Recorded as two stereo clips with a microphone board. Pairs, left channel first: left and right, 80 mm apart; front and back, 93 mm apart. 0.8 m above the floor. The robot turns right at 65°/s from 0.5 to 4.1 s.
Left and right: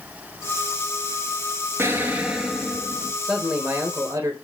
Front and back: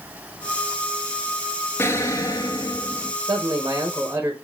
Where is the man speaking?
170° right, 0.7 m; by 4.3 s 110° right, 0.7 m.